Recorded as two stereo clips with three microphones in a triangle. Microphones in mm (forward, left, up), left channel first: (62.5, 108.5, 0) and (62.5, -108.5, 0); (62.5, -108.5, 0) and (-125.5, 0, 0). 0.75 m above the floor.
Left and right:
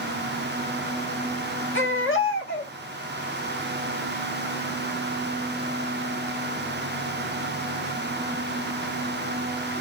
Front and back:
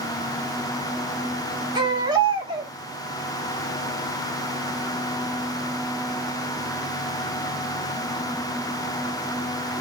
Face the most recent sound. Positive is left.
turn(degrees=85)